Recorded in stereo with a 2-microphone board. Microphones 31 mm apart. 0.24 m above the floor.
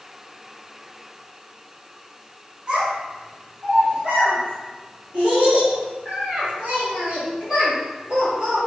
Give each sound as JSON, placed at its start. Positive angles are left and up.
{"t": 2.7, "sound": "a child speaking", "side_deg": -35, "distance_m": 1.7}